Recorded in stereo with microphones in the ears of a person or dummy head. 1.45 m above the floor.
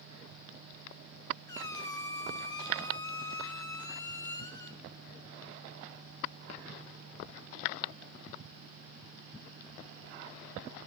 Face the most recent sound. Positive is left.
turn(degrees=20)  # may be behind; listen again after turning